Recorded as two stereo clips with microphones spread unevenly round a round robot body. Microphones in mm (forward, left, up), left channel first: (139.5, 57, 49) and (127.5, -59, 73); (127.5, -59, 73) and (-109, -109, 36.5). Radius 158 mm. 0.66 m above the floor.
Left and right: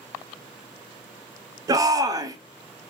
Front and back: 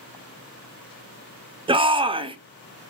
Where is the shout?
150° right, 0.6 m.